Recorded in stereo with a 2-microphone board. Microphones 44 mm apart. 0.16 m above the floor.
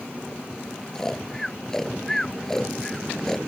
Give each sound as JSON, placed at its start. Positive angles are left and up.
{"t": 0.9, "sound": "snoring", "side_deg": 10}